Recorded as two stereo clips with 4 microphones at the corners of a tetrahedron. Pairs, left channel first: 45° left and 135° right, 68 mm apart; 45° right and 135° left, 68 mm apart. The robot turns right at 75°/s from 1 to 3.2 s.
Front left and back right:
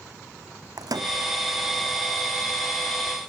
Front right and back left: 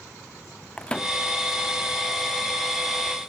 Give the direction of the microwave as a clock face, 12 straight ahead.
4 o'clock.